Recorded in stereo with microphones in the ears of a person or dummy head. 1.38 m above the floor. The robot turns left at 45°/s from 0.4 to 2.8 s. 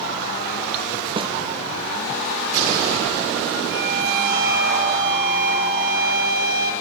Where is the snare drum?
25° right (ahead or behind), 0.9 m; by 1.3 s 15° right (ahead or behind), 0.9 m.